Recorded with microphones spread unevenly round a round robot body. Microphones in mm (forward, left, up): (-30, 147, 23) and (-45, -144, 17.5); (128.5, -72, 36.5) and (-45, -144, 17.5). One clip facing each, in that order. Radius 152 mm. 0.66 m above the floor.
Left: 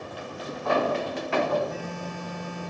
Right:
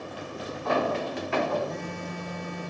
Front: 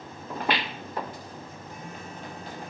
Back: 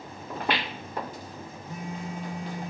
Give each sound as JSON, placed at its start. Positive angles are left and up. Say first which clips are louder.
{"t": 1.7, "sound": "a phone buzzing", "louder": "even, back 8 dB", "azimuth_deg": 175, "distance_m": 5.0}